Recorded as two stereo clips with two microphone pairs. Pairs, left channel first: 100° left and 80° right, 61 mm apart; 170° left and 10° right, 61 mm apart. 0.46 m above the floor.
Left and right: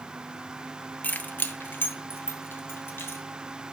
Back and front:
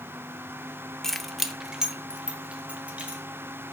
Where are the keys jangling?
90° left, 0.6 m; by 3.2 s 55° left, 1.5 m.